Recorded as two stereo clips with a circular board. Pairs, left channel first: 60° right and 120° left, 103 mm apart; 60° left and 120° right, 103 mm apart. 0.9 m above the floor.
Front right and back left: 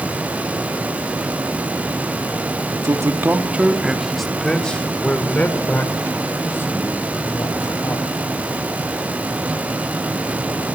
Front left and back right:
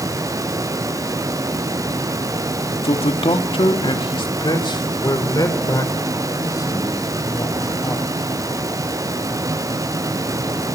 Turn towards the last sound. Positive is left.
turn(degrees=0)